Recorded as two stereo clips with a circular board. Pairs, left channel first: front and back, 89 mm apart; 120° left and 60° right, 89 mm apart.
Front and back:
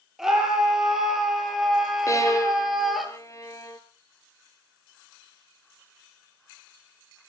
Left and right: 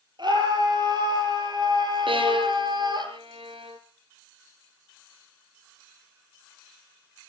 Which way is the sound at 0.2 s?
95° right.